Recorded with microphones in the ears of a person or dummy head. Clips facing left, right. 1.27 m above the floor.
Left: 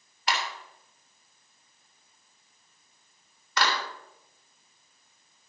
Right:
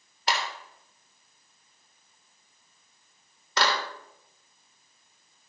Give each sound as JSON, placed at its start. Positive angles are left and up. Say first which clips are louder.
{"t": 0.3, "sound": "a clap", "louder": "right 1 dB", "side_deg": -30, "distance_m": 3.5}